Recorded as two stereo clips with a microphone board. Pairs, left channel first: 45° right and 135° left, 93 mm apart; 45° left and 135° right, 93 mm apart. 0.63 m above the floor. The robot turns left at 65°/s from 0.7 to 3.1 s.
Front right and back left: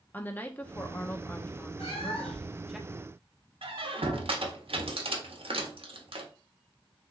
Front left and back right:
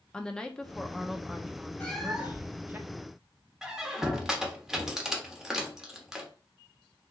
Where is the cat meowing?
30° right, 0.9 m; by 2.6 s 85° right, 0.9 m.